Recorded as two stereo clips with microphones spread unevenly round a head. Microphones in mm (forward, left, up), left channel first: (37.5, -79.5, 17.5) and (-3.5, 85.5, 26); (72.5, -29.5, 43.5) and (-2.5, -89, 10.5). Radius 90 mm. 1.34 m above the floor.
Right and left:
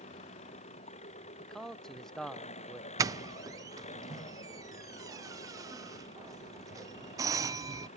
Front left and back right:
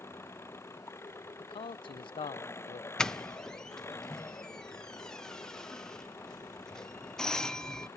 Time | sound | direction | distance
0.0 | an engine running | 25° right | ?
1.4 | a man speaking | 10° left | ?
3.0 | a doorbell | 155° left | ?